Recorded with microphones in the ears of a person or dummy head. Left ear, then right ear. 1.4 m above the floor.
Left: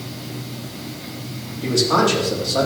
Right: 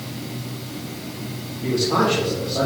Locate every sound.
1.6 s a man speaking: 50° left (ahead or behind), 3.5 m